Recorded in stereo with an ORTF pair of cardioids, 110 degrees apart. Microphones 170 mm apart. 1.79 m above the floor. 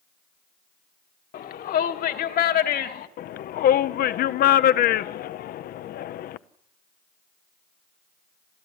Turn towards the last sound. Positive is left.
turn(degrees=65)